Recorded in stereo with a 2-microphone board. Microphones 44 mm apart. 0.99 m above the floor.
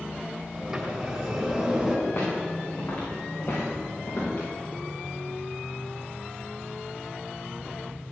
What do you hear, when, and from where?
0.5 s a sliding door: 15° right (ahead or behind), 3.5 m
2.1 s footsteps: 55° left (ahead or behind), 6.5 m; by 4.5 s 50° left (ahead or behind), 8 m